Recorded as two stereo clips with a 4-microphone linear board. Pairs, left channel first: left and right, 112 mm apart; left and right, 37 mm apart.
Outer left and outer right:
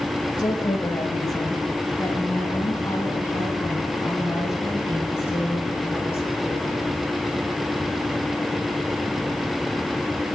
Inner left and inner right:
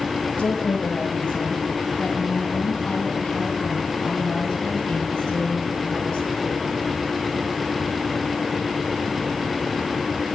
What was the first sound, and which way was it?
A woman speaking, 35° left (ahead or behind).